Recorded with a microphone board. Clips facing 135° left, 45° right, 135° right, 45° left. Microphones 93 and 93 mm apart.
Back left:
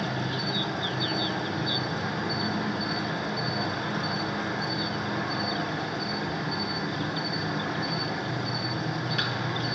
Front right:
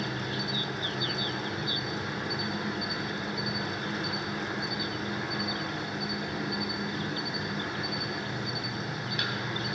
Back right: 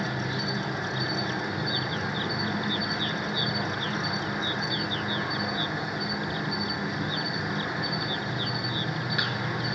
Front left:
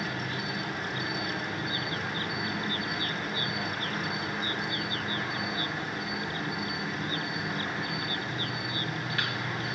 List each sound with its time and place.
0.0 s an insect: 155° left, 3.5 m